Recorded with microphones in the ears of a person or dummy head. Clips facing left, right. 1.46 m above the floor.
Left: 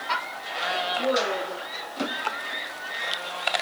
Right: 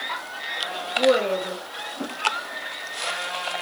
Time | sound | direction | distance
1.0 | a woman speaking | 75° right (ahead or behind) | 2.0 m